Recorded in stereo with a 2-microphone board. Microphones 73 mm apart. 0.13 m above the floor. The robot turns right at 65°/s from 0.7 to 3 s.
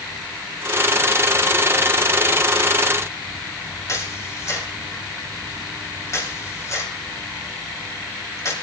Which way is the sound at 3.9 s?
40° left (ahead or behind).